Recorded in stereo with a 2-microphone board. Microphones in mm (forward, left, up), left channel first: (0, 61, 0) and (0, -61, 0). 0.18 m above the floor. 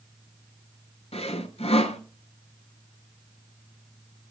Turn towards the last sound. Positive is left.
turn(degrees=55)  # may be behind; listen again after turning